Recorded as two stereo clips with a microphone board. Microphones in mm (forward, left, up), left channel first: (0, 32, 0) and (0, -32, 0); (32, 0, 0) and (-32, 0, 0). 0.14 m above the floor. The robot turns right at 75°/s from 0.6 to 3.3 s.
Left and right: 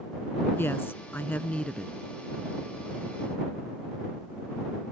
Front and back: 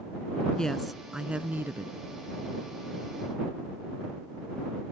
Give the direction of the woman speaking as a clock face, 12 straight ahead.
10 o'clock.